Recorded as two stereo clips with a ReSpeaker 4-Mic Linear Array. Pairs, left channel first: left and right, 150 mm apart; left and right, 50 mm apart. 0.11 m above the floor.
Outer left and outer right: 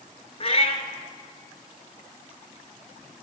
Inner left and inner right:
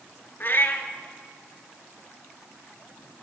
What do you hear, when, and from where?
0.4 s a cat meowing: 45° left (ahead or behind), 0.9 m